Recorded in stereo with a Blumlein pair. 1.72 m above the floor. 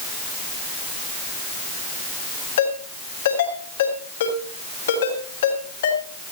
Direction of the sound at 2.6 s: 60° left.